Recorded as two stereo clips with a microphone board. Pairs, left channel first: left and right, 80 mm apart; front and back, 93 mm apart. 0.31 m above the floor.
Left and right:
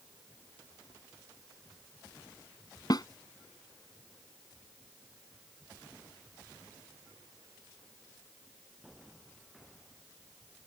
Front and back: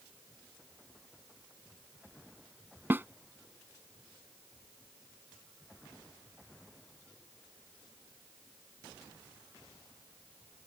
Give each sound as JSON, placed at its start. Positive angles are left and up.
{"t": 2.9, "sound": "a snare drum", "azimuth_deg": 115}